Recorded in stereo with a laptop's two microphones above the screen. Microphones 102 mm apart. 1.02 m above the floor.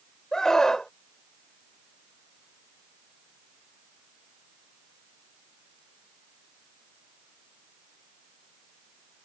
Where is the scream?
5° left (ahead or behind).